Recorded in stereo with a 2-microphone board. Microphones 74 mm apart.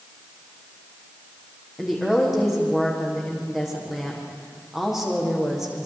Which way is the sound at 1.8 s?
5° right (ahead or behind).